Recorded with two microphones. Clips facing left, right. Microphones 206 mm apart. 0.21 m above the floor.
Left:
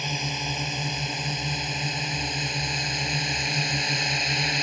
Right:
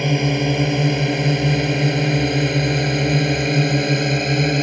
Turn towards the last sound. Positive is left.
turn(degrees=-60)  # may be behind; listen again after turning